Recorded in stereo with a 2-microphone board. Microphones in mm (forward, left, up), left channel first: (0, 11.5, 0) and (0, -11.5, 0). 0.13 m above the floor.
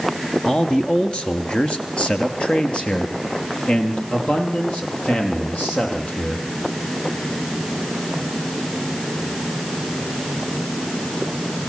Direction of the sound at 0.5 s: 45° left (ahead or behind).